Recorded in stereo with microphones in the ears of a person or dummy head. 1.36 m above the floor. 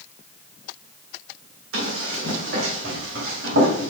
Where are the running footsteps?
70° right (ahead or behind), 4.5 m.